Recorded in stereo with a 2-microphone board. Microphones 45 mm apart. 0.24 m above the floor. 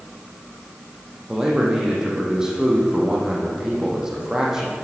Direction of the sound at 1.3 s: 10° right (ahead or behind).